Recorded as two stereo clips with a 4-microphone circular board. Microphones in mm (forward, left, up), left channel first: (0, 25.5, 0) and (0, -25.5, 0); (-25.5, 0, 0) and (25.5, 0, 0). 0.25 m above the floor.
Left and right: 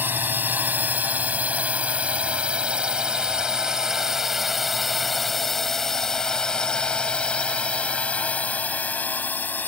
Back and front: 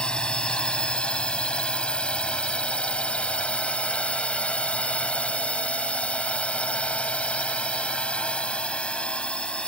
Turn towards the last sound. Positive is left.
turn(degrees=120)